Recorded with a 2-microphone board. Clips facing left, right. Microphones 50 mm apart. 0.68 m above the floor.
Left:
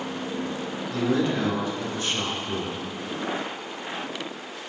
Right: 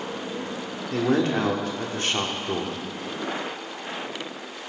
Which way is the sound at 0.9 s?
60° right (ahead or behind).